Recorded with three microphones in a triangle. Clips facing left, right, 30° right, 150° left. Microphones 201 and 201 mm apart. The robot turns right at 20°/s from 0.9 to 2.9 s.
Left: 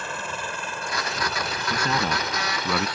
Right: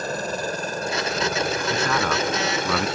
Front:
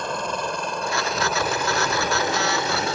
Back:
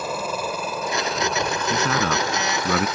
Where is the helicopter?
125° right; by 3.0 s 80° right.